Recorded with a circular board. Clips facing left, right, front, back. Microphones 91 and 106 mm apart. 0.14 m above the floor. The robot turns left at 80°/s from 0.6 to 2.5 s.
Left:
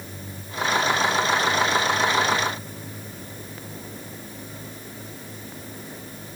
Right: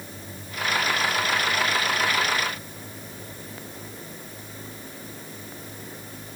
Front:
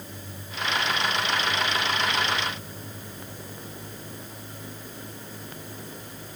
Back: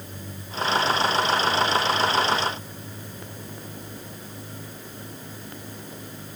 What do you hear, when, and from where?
Only background noise.